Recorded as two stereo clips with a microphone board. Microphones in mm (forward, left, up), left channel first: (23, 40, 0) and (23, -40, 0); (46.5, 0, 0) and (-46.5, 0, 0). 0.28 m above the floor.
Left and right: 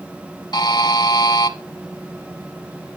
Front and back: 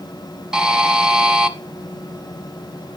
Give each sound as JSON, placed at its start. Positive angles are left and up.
{"t": 0.5, "sound": "a buzzer", "azimuth_deg": 100, "distance_m": 0.8}